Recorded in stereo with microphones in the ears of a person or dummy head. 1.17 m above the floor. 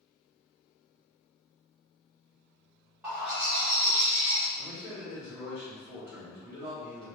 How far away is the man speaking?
About 1.7 m.